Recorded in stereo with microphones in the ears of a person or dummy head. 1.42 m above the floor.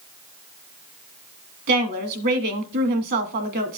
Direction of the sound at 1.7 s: 55° right (ahead or behind).